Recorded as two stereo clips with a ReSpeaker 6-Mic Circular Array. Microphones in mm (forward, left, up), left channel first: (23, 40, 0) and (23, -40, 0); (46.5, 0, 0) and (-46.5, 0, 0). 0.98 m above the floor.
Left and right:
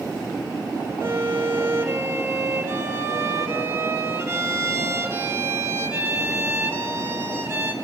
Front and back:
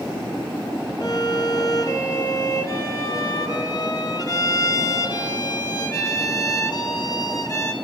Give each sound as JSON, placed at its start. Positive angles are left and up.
{"t": 1.0, "sound": "a violin", "azimuth_deg": -40, "distance_m": 0.9}